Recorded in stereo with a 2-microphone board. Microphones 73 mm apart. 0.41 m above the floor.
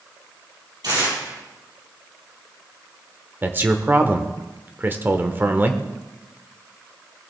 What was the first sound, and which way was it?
Tearing paper, 60° right (ahead or behind).